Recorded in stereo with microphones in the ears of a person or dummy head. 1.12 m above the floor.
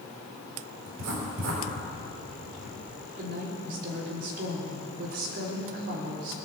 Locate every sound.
0.9 s writing: 80° right, 4 m
3.2 s a woman speaking: 55° right (ahead or behind), 4 m